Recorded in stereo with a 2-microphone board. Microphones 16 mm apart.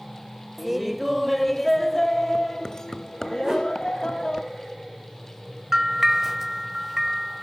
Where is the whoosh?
30° right (ahead or behind), 7.5 m.